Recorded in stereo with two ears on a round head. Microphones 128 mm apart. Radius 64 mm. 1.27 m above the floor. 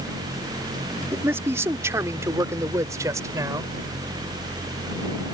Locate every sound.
1.1 s a man speaking: 15° right (ahead or behind); by 3.7 s 25° right (ahead or behind)